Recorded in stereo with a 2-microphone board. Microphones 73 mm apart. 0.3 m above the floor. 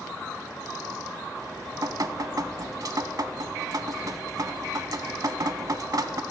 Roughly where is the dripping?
Right.